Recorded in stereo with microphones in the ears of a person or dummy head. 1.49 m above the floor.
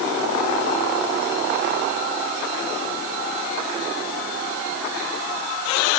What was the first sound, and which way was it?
Only background noise.